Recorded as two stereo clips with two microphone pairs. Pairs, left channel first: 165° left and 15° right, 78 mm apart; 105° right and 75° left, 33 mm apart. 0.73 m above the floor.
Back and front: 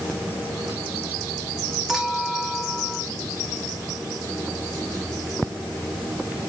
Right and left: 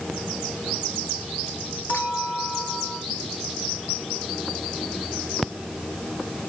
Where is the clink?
105° right, 4 m.